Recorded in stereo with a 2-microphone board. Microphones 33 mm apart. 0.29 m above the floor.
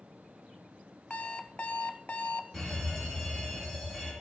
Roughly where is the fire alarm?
Centre.